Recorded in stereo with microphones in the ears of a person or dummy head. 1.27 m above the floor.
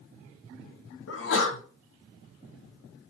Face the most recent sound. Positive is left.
turn(degrees=80)